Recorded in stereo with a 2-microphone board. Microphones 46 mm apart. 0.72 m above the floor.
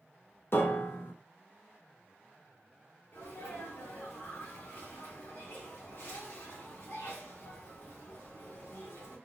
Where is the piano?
60° left (ahead or behind), 0.6 m.